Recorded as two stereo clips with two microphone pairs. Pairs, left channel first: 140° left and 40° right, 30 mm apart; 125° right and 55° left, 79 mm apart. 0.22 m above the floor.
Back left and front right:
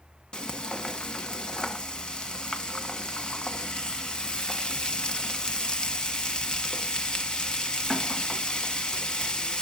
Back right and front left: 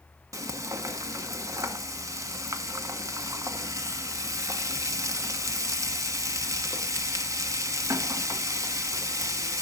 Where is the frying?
85° left, 1.2 m.